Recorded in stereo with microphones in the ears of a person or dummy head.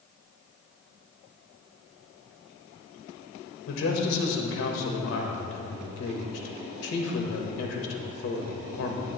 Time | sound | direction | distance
3.7 | a man speaking | 75° left (ahead or behind) | 1.7 m